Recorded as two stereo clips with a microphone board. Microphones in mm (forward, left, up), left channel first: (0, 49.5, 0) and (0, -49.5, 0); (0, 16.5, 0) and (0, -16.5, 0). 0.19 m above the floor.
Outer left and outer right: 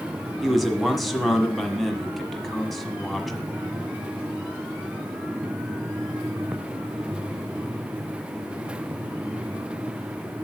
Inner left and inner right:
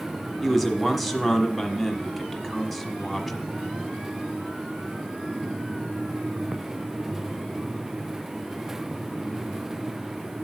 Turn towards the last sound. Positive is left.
turn(degrees=0)  # may be behind; listen again after turning